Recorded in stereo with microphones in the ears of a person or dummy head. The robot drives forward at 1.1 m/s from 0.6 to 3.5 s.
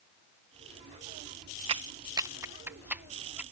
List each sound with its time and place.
1.7 s a clap: 30° right (ahead or behind); by 3.4 s 5° right (ahead or behind)